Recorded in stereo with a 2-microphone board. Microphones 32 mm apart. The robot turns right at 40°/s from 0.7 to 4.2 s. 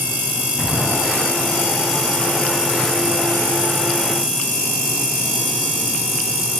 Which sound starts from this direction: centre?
An explosion, at 0.6 s.